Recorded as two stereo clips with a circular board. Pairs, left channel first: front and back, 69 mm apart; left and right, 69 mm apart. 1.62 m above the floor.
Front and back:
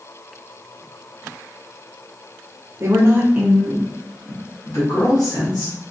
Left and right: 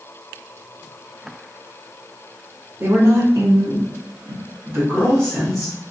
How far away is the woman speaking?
About 0.9 m.